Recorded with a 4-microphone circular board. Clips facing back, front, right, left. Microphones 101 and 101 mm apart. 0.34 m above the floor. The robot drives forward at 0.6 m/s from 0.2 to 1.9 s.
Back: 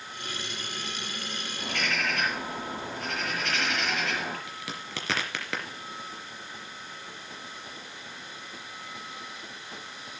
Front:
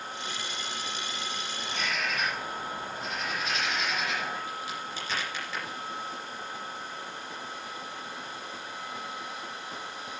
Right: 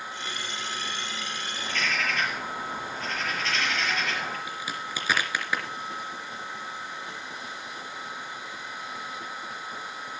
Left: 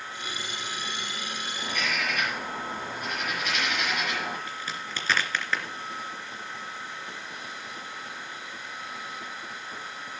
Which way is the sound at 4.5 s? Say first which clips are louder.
Front 3 dB, right 2 dB; 170° right.